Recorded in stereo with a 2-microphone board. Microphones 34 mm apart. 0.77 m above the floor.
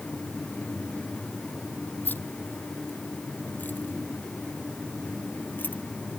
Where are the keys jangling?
85° left.